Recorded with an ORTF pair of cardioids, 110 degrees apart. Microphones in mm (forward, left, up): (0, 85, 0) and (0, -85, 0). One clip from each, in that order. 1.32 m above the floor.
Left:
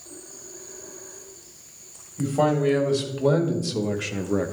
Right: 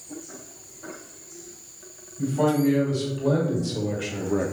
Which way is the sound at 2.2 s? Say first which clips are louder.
Left 1 dB; 55° left.